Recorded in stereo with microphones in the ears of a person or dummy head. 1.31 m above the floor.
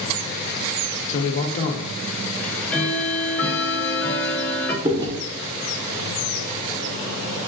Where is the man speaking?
40° left (ahead or behind), 0.7 m.